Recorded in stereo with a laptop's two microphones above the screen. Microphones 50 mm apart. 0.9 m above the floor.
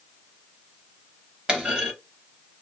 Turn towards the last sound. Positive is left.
turn(degrees=-15)  # may be behind; listen again after turning